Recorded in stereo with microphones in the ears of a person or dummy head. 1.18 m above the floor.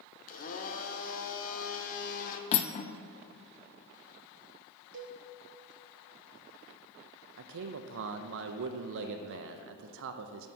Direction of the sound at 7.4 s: 65° right (ahead or behind).